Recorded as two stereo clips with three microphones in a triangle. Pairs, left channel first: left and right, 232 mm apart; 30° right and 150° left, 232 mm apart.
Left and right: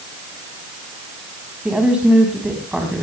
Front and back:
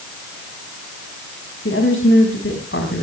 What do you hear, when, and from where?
1.6 s a woman speaking: 5° right, 4 m